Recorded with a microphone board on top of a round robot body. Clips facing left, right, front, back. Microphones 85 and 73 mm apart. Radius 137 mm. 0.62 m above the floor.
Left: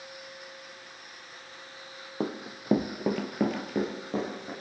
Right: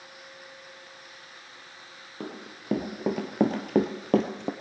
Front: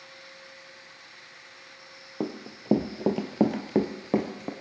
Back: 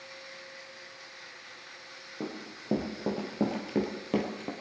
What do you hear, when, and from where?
2.2 s running footsteps: 30° left, 1.1 m; by 4.5 s 75° right, 1.2 m